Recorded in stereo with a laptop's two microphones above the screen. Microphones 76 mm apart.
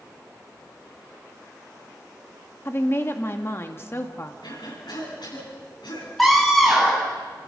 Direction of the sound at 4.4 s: 85° left.